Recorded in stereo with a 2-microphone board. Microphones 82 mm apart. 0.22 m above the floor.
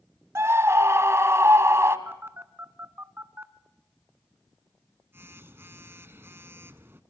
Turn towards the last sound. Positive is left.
turn(degrees=-30)  # may be behind; listen again after turning